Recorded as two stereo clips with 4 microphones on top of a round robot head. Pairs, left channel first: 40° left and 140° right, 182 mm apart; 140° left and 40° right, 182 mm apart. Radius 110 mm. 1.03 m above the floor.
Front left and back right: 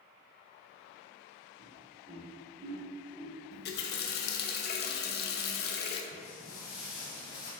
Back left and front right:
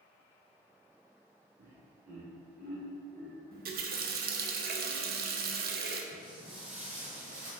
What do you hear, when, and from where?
1.6 s laughter: 85° right, 2.0 m; by 3.4 s 90° right, 3.5 m
3.5 s a running tap: straight ahead, 0.7 m
6.1 s footsteps: 30° left, 2 m; by 7.5 s 5° left, 2.5 m